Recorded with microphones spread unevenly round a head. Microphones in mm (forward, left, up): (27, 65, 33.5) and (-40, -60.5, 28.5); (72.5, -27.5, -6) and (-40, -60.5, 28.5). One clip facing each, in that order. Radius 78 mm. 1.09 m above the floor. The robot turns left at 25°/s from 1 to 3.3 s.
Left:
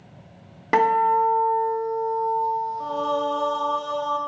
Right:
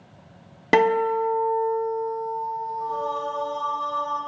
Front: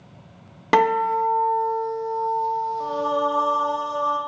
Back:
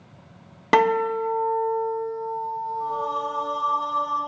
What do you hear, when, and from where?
0.7 s a guitar: 120° right, 0.7 m; by 3.8 s 175° right, 0.7 m
2.8 s singing: 65° left, 0.8 m; by 4.2 s 50° left, 0.8 m